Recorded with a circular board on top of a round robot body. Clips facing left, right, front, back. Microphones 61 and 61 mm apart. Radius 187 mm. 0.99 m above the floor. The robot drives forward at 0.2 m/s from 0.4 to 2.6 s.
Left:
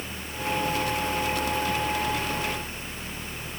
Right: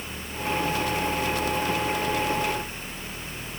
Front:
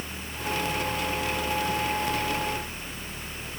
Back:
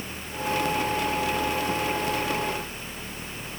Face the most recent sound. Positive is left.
No sound to turn to.